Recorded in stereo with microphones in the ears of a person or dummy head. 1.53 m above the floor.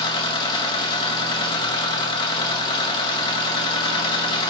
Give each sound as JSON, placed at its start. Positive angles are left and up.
{"t": 0.0, "sound": "a machine running", "side_deg": 25, "distance_m": 1.5}